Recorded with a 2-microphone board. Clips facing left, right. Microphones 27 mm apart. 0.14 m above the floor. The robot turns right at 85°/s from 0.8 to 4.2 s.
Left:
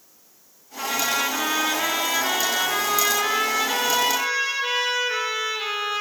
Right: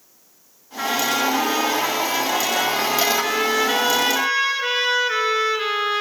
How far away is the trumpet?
About 1.7 m.